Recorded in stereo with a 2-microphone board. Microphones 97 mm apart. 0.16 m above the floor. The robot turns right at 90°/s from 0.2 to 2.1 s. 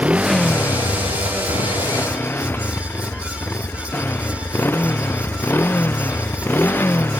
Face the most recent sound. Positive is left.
turn(degrees=160)